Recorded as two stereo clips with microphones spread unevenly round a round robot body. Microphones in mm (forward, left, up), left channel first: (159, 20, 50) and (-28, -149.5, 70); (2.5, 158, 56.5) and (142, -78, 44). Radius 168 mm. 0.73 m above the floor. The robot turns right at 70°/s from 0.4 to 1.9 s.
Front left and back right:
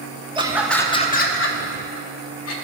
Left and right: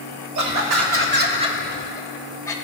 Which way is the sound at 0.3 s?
65° right.